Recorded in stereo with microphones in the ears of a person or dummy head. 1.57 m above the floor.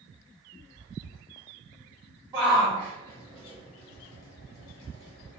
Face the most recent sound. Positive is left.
turn(degrees=75)  # may be behind; listen again after turning